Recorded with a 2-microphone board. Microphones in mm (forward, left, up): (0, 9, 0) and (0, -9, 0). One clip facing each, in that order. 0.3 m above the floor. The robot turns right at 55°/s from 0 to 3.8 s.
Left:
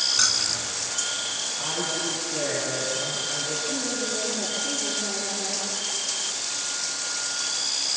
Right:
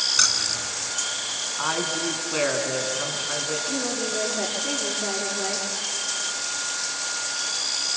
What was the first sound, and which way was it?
Keys jangling, 20° right (ahead or behind).